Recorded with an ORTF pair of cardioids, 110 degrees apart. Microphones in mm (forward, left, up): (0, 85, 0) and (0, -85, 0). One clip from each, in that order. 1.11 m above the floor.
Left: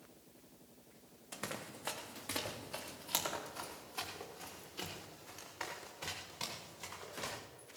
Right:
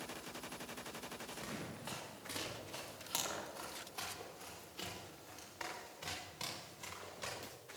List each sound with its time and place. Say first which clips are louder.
1.3 s running footsteps: left 1 dB; 55° left, 3.5 m; by 7.4 s 15° left, 9 m